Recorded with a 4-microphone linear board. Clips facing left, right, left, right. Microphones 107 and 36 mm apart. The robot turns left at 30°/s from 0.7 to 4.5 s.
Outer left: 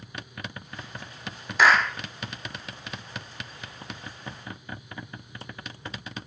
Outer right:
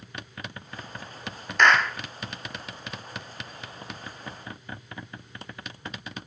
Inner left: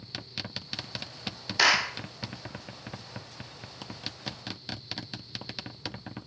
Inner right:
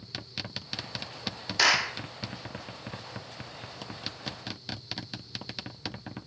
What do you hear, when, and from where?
1.6 s a clap: 5° left (ahead or behind), 1.1 m; by 2.0 s 5° right (ahead or behind), 1.1 m